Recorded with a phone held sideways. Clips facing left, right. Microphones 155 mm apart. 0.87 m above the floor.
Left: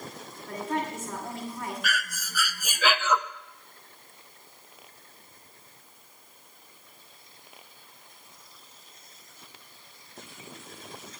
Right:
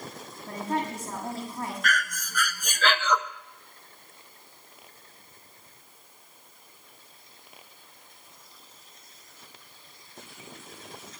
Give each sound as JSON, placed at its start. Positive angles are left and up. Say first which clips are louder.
{"t": 0.5, "sound": "a woman speaking", "louder": "right 1 dB", "side_deg": -35, "distance_m": 7.0}
{"t": 1.8, "sound": "breathing", "louder": "right 3 dB", "side_deg": 5, "distance_m": 0.7}